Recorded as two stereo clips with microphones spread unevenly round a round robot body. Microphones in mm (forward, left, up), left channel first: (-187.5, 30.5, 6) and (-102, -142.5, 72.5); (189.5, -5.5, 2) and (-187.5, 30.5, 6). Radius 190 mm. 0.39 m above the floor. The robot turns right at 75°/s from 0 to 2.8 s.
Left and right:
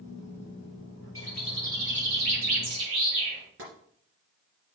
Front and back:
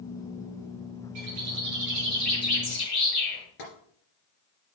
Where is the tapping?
45° right, 2.5 m.